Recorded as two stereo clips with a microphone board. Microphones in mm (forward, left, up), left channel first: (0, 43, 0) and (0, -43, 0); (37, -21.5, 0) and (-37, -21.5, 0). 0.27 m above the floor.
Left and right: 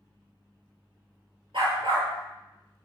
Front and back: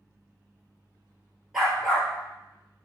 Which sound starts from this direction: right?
A dog barking, at 1.5 s.